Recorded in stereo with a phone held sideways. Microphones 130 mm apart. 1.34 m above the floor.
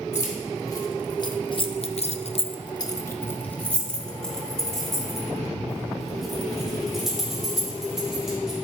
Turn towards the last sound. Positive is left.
turn(degrees=-5)  # may be behind; listen again after turning